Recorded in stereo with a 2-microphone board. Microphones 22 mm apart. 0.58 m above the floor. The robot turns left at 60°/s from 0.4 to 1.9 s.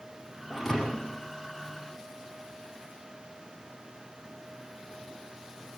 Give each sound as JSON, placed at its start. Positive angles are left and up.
{"t": 0.5, "sound": "a thud", "azimuth_deg": -175, "distance_m": 8.0}